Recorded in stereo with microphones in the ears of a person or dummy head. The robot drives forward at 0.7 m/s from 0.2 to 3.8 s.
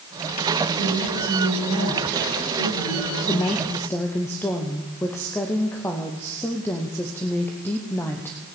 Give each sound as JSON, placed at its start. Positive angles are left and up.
{"t": 0.8, "sound": "a woman speaking", "side_deg": 80, "distance_m": 8.5}
{"t": 3.3, "sound": "a woman speaking", "side_deg": 15, "distance_m": 0.7}